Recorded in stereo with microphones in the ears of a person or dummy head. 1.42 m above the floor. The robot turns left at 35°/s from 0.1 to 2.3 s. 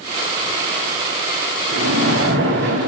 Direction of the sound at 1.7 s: 75° right (ahead or behind).